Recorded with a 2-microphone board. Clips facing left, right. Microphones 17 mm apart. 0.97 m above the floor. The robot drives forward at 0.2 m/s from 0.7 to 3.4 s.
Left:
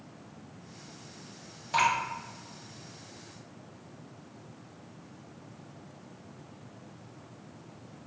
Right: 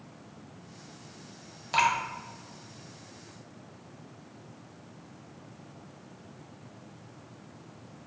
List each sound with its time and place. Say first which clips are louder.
1.7 s dripping: right 1 dB; 35° right (ahead or behind), 1.0 m